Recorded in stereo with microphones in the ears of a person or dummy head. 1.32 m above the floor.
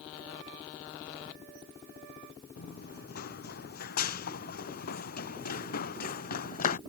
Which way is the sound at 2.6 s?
55° left (ahead or behind).